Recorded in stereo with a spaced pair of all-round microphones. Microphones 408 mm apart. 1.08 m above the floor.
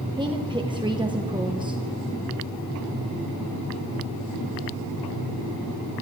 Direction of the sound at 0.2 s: 10° right (ahead or behind).